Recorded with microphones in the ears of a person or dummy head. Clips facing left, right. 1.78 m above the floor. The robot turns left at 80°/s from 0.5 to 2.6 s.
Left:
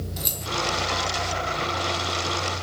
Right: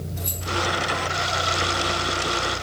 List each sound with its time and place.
0.2 s keys jangling: 50° left (ahead or behind), 1.3 m